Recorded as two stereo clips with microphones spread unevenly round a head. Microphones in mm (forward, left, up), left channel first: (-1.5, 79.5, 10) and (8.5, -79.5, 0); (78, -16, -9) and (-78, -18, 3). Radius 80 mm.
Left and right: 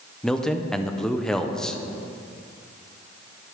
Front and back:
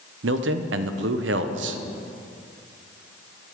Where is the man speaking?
Straight behind, 0.8 m.